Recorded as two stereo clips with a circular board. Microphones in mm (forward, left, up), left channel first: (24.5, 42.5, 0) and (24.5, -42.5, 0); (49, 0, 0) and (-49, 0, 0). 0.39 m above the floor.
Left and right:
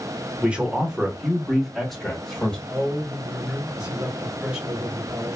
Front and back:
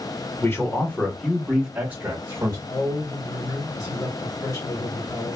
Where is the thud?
No thud in this recording.